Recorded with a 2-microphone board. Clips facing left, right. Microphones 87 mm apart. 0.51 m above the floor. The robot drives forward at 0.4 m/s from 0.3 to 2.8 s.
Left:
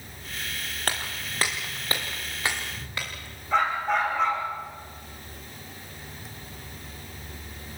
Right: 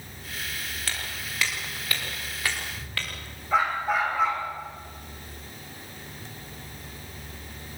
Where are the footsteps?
50° left (ahead or behind), 2.5 m; by 3.1 s 20° left (ahead or behind), 5 m.